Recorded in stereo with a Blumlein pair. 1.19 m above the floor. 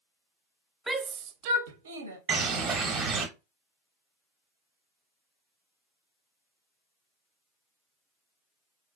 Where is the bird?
25° right, 0.9 m.